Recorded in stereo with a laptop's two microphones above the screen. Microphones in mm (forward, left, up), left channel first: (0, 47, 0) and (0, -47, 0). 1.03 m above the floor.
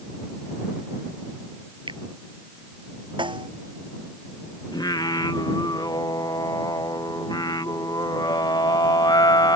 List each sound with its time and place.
1.9 s a finger snap: 60° right (ahead or behind)
3.2 s a snare drum: 60° right (ahead or behind)
4.7 s singing: 45° left (ahead or behind)